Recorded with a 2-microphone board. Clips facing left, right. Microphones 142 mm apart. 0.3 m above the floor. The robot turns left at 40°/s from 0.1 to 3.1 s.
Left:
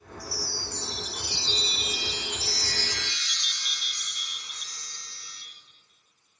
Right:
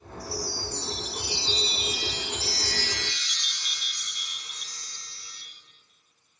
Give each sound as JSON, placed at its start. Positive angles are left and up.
{"t": 0.2, "sound": "a chime", "azimuth_deg": 95, "distance_m": 2.5}